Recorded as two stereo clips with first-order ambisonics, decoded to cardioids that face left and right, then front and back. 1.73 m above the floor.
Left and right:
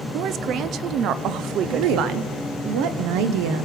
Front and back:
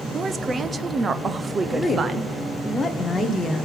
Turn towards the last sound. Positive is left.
turn(degrees=-80)